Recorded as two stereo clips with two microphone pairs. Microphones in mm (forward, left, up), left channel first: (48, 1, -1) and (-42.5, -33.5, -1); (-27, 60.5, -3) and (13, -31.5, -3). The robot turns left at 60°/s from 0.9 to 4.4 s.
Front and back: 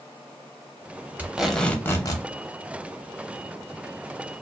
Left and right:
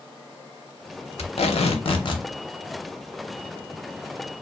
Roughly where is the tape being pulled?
Behind left.